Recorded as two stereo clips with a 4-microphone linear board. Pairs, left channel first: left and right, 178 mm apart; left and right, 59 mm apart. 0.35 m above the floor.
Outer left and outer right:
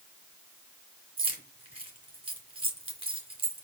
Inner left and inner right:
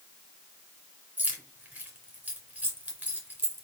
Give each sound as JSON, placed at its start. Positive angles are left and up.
{"t": 1.2, "sound": "keys jangling", "side_deg": -30, "distance_m": 2.5}